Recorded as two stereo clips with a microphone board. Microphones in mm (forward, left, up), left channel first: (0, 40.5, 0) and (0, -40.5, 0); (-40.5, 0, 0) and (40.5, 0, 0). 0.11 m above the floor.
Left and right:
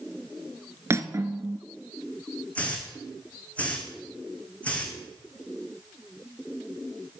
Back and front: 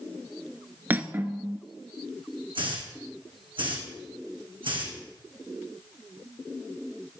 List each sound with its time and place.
0.9 s cutlery clinking: 55° right, 0.8 m
2.5 s a hiss: 15° left, 3 m